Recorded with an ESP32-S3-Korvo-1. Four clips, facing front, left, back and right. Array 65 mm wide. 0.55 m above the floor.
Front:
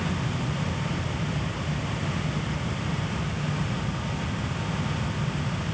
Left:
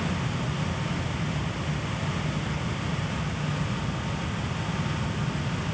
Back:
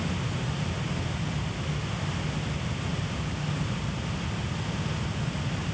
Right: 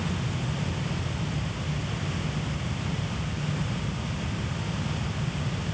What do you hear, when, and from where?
Only background noise.